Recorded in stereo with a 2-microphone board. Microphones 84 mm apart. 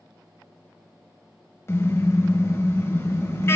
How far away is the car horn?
About 2.5 m.